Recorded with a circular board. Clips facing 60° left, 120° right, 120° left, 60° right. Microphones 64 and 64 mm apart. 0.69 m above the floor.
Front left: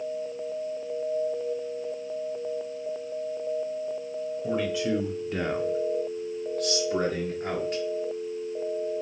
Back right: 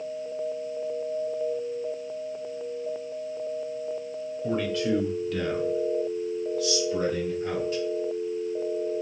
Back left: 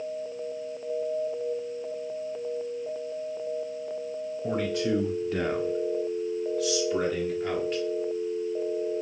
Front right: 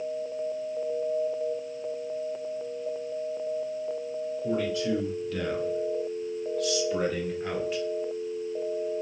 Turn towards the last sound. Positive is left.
turn(degrees=25)